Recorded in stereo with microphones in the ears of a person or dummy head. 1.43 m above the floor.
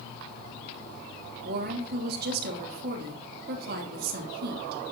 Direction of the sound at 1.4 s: 60° right (ahead or behind).